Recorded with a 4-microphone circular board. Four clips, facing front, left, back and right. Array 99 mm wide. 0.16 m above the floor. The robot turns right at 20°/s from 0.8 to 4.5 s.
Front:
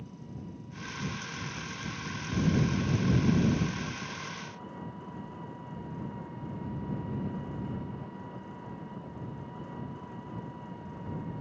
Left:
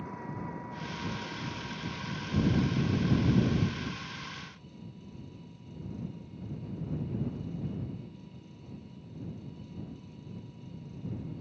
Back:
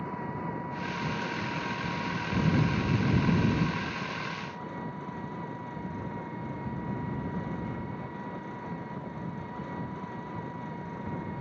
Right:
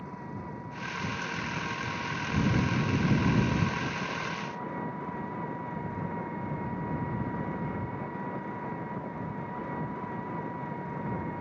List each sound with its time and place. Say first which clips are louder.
0.0 s an engine running: left 1 dB, back 10 dB; straight behind; by 11.4 s 105° right